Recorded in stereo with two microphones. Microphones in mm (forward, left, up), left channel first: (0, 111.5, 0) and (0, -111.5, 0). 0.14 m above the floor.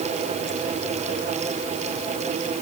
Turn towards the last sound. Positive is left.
No sound to turn to.